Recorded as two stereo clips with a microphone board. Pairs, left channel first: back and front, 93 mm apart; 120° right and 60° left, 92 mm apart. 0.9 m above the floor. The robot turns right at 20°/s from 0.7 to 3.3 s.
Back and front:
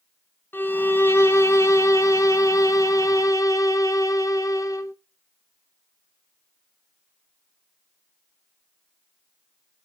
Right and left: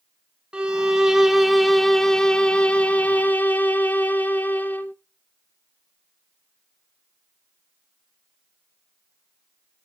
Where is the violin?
130° left, 0.6 m; by 4.9 s straight behind, 0.6 m.